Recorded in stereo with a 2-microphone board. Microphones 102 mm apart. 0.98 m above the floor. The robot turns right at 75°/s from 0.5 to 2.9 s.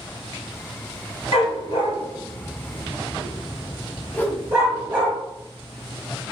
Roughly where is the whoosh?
Centre.